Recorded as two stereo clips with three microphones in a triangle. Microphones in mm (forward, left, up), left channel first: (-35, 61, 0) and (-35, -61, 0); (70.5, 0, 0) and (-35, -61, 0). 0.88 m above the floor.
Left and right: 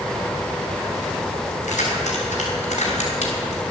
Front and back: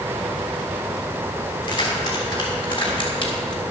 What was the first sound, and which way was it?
Keys jangling, 80° left.